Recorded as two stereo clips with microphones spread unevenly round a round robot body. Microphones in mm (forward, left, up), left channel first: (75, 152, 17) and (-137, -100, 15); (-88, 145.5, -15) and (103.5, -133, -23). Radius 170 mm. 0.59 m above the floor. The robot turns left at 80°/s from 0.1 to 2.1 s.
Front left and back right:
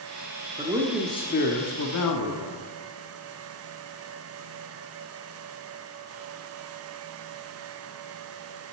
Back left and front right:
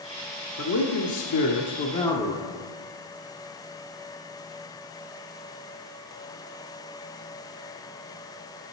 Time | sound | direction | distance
0.6 | a man speaking | 170° left | 1.1 m